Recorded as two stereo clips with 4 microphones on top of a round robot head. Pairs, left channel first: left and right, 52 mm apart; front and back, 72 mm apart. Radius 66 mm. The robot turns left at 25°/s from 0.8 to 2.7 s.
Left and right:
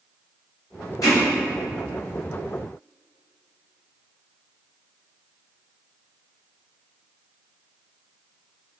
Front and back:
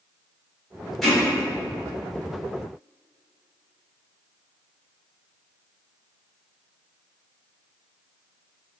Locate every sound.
1.0 s hammering: 95° left, 1.7 m; by 1.2 s 90° left, 1.7 m